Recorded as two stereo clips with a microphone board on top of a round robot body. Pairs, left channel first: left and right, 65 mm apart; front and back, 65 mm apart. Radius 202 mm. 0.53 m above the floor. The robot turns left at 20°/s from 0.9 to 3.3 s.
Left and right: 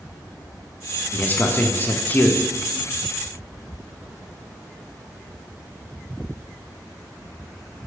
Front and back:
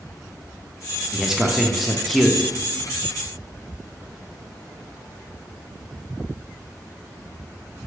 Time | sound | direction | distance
1.1 | a man speaking | 110° left | 0.6 m